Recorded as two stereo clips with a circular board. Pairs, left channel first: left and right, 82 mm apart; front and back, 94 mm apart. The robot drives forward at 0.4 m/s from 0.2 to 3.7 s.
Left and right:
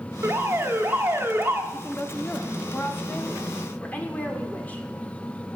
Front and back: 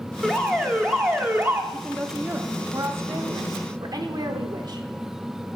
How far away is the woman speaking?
About 0.8 m.